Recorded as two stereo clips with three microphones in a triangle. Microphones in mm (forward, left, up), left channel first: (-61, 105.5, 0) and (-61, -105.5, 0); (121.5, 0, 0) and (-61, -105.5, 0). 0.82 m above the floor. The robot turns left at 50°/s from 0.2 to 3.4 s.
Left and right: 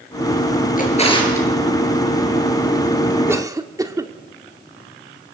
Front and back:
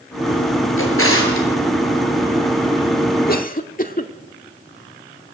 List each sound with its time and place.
0.8 s a drawer: 45° left, 6 m; by 1.5 s 10° left, 6 m
3.3 s a cough: 10° right, 1.8 m; by 4.1 s 15° right, 1.8 m